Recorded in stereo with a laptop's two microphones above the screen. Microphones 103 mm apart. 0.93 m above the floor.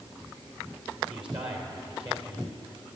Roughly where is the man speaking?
Right.